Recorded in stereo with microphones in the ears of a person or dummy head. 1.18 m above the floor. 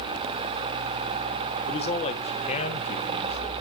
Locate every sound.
1.7 s a man speaking: 30° left (ahead or behind), 0.9 m